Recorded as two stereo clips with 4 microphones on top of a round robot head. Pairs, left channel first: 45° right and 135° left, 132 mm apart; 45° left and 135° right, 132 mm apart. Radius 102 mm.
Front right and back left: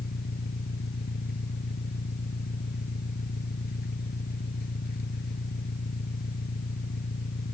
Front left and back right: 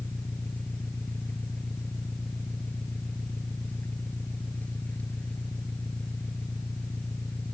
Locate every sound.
0.0 s an engine running: 35° right